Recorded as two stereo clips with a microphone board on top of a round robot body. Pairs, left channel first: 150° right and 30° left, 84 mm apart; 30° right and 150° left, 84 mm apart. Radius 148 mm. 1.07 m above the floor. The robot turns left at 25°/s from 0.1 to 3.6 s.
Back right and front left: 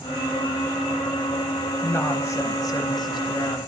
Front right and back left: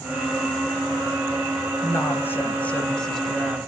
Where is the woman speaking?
80° right, 1.0 m; by 3.6 s 125° right, 1.0 m.